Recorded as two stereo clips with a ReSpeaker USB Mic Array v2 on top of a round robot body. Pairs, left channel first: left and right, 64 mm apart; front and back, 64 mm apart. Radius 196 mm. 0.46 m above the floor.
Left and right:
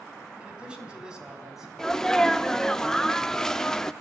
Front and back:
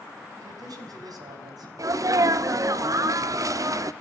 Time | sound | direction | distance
0.4 | a man speaking | 165° right | 5 m
1.8 | a sneeze | 170° left | 1.2 m